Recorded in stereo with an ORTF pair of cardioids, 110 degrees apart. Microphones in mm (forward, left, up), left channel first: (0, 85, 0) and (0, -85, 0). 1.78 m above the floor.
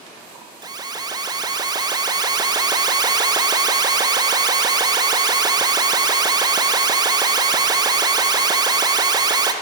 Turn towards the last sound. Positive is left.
turn(degrees=-25)